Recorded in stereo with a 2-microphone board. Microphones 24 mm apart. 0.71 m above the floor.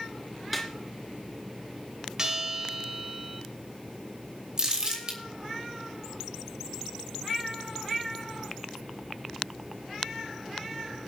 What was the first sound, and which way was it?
A snare drum, centre (ahead or behind).